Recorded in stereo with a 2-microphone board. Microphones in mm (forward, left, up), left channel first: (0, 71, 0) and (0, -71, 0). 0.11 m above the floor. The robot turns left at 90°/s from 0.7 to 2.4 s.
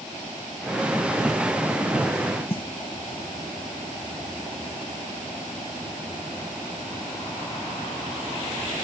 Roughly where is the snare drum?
Left.